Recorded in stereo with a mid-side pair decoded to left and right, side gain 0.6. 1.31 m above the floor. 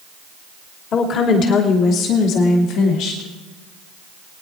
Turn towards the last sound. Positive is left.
turn(degrees=75)